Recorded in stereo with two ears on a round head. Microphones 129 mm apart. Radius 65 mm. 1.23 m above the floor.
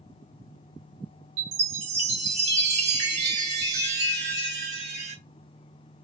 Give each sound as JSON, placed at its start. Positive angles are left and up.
{"t": 1.4, "sound": "a chime", "side_deg": -50, "distance_m": 1.3}